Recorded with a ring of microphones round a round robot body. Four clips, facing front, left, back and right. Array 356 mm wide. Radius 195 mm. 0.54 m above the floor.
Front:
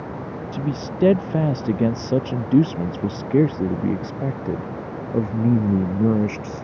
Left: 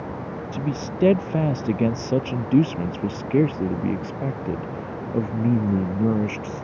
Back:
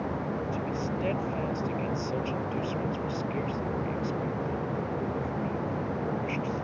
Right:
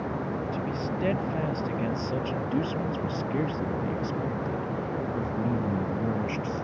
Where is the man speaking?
40° left; by 6.7 s 25° left.